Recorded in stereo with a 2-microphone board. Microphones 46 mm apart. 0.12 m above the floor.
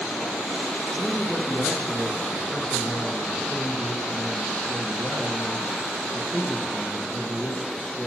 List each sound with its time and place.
0.9 s a man speaking: 15° left (ahead or behind), 1.1 m